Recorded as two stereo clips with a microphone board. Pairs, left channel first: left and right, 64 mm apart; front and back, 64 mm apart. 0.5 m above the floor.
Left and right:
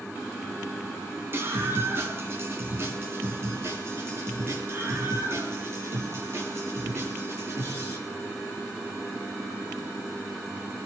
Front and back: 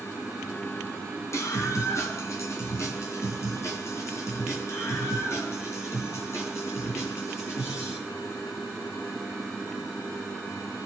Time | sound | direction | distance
1.3 | a scream | 40° right | 4.5 m